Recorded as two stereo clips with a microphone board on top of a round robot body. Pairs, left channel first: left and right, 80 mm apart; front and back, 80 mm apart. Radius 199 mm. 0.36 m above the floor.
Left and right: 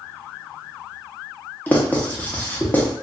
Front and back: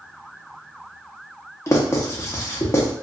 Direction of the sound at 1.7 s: 30° left.